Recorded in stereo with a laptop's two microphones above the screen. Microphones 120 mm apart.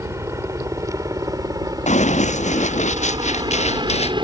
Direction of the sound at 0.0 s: 25° right (ahead or behind).